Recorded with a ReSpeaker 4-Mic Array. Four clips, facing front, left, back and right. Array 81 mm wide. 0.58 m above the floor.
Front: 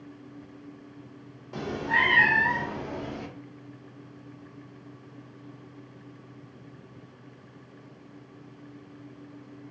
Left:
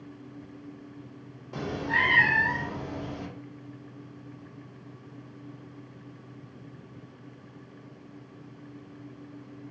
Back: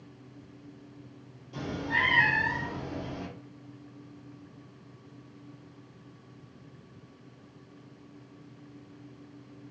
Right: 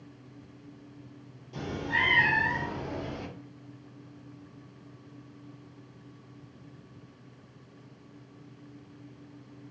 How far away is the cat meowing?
About 0.6 m.